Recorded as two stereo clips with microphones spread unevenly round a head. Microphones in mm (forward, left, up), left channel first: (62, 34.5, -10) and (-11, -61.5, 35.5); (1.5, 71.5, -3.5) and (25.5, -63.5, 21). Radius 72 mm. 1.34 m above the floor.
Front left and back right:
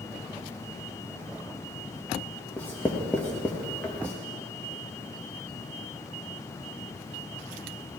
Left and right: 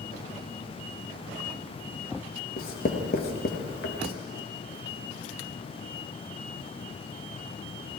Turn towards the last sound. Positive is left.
turn(degrees=135)